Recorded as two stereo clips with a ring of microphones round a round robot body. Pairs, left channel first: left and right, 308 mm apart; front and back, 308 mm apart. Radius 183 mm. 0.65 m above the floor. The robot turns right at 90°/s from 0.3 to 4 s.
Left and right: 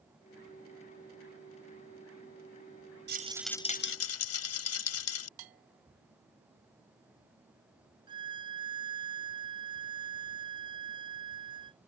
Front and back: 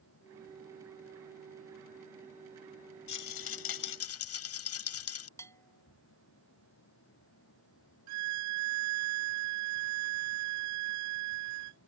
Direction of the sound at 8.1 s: 165° right.